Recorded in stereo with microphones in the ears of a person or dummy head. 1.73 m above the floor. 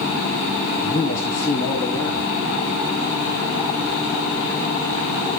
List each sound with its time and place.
0.8 s a man speaking: 15° left (ahead or behind), 2.5 m